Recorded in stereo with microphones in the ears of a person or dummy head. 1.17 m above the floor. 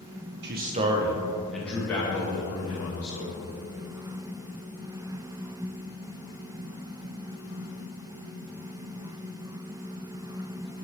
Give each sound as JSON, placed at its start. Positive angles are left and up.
{"t": 0.4, "sound": "a man speaking", "side_deg": -55, "distance_m": 0.7}